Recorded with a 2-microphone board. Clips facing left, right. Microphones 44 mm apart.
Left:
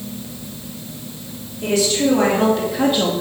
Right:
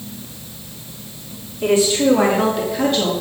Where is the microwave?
I don't hear a microwave.